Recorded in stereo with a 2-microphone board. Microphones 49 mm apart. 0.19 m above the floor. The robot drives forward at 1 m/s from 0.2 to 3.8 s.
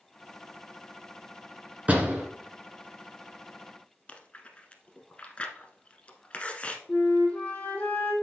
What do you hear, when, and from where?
1.9 s a door slam: 30° right (ahead or behind), 1.6 m; by 2.2 s 25° right (ahead or behind), 1.8 m
4.1 s chewing: 25° left (ahead or behind), 0.9 m
6.9 s a flute: 25° left (ahead or behind), 1.8 m